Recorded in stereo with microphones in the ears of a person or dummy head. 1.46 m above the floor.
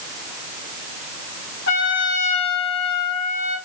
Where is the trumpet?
65° left (ahead or behind), 1.8 m.